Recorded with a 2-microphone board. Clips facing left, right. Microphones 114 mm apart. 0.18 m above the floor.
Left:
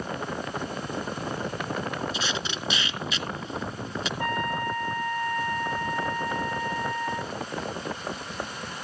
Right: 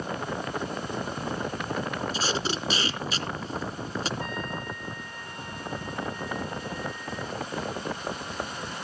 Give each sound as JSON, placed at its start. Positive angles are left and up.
{"t": 2.1, "sound": "tape being pulled", "side_deg": -35, "distance_m": 2.0}
{"t": 4.2, "sound": "a trumpet", "side_deg": 65, "distance_m": 1.6}